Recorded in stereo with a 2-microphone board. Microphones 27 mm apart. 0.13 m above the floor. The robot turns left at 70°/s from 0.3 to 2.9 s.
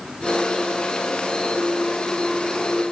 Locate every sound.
Only background noise.